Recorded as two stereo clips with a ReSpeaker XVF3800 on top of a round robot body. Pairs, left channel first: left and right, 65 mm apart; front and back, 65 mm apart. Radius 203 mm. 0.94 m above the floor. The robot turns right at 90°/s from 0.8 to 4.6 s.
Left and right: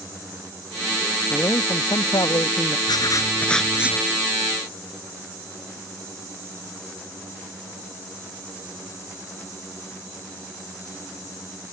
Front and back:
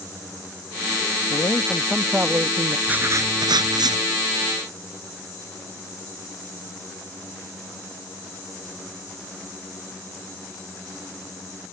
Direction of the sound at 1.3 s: 30° left.